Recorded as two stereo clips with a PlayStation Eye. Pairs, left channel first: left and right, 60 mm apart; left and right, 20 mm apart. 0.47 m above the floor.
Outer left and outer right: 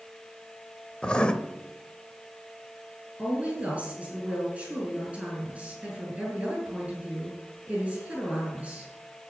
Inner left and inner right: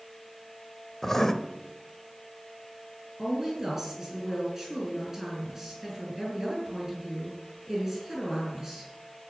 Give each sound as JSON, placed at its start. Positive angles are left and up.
{"t": 1.0, "sound": "writing", "side_deg": 20, "distance_m": 0.8}
{"t": 3.2, "sound": "a woman speaking", "side_deg": -20, "distance_m": 6.0}